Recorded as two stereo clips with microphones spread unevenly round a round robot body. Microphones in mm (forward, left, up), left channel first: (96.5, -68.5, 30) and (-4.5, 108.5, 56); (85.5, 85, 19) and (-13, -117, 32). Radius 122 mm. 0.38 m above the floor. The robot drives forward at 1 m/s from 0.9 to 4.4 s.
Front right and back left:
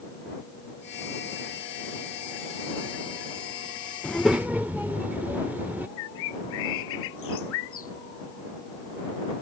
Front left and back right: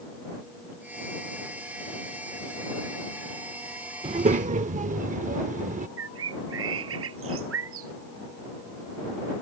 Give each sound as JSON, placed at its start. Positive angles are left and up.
{"t": 4.0, "sound": "a child speaking", "azimuth_deg": -100}
{"t": 6.0, "sound": "a bird", "azimuth_deg": -90}